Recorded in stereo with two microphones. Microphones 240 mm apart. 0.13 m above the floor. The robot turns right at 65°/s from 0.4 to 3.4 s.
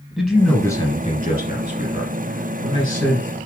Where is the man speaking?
5° left, 1.8 m; by 3.3 s 170° right, 1.8 m.